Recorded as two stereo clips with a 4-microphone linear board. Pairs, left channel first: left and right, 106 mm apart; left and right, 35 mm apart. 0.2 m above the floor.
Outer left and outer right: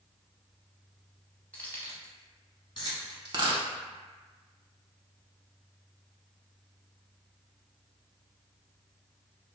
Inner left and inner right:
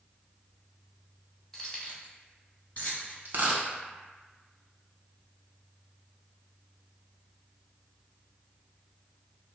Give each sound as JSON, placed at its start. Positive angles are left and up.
{"t": 1.5, "sound": "keys jangling", "side_deg": 10, "distance_m": 0.7}
{"t": 3.2, "sound": "a dropped coin", "side_deg": -45, "distance_m": 0.6}